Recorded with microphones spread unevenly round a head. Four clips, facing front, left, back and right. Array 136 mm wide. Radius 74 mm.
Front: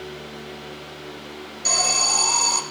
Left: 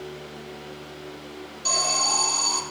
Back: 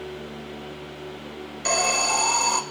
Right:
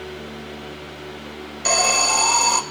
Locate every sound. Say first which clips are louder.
1.6 s an alarm: right 7 dB, back 3 dB; 115° right, 3 m